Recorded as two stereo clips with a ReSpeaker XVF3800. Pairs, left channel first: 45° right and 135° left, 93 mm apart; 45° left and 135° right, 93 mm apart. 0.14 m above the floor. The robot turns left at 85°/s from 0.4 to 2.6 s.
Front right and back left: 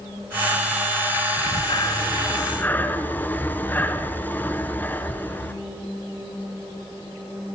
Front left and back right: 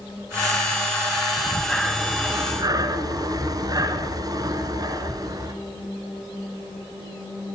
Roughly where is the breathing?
Ahead.